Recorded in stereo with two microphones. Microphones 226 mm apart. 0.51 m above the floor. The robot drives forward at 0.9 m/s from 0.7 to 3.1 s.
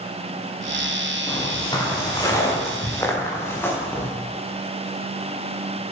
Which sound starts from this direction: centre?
Footsteps, at 1.3 s.